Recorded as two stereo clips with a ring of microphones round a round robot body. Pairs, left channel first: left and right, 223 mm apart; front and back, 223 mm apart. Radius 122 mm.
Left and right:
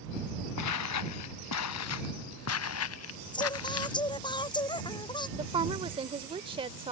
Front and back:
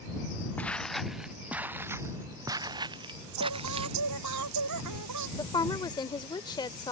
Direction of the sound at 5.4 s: 50° right.